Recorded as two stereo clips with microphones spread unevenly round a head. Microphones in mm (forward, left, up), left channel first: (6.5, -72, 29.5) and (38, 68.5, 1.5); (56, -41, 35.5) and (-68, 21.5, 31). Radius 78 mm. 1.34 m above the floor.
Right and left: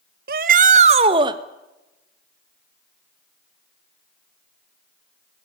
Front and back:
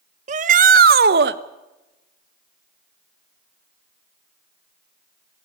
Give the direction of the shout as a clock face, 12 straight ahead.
8 o'clock.